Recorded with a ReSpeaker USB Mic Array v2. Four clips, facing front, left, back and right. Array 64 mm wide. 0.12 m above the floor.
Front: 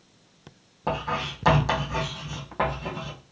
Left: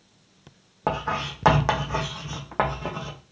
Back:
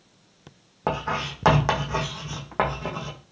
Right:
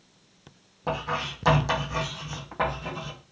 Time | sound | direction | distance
0.9 | writing | 125° left | 1.4 m